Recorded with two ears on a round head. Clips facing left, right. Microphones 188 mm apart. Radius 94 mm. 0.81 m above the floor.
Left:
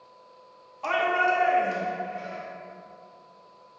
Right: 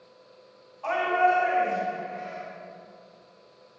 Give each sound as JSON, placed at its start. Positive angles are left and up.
{"t": 0.8, "sound": "a shout", "side_deg": 55, "distance_m": 1.3}